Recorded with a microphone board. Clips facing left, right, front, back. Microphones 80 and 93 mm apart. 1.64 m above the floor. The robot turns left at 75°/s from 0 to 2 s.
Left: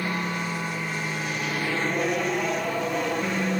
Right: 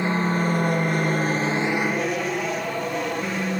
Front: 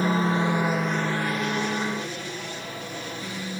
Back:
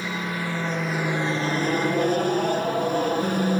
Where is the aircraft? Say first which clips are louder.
Right 6 dB, front 6 dB; 30° right; by 3.6 s straight behind.